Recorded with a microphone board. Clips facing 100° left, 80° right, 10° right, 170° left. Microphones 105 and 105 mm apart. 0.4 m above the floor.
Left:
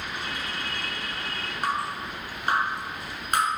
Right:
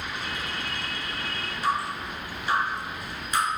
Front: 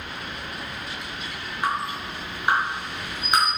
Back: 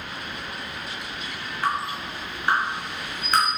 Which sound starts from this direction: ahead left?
Dripping, at 1.6 s.